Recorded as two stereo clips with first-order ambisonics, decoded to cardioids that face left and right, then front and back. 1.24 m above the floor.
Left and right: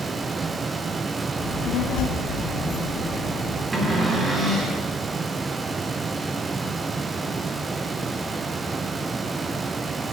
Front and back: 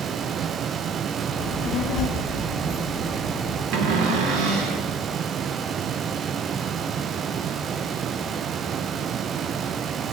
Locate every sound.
1.4 s a child speaking: 30° left, 0.7 m; by 3.6 s 110° left, 1.1 m
3.7 s a cupboard door: 165° right, 1.1 m